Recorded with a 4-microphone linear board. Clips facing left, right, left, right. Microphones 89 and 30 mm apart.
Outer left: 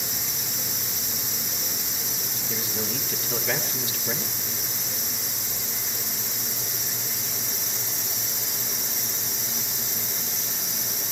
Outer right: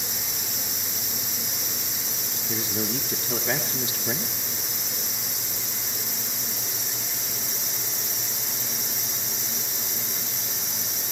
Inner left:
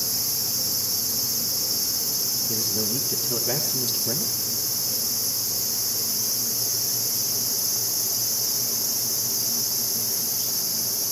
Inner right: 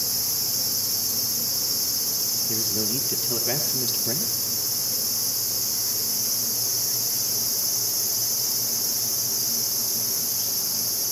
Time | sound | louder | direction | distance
2.5 | a man speaking | outer right 3 dB, even | 25° right (ahead or behind) | 3.5 m